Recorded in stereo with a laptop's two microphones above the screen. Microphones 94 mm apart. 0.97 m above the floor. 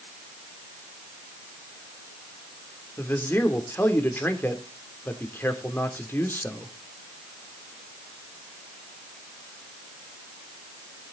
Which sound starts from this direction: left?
A man speaking, at 3.0 s.